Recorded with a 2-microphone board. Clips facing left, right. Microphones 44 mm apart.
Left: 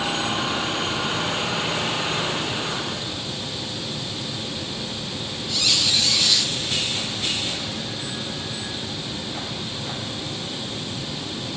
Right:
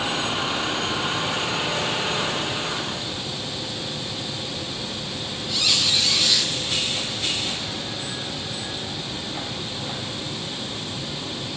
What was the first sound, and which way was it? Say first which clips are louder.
A squeak: even; 5° right (ahead or behind).